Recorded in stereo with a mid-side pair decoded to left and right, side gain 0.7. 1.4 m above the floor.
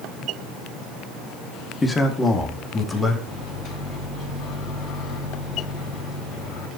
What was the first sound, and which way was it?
A man speaking, 15° left.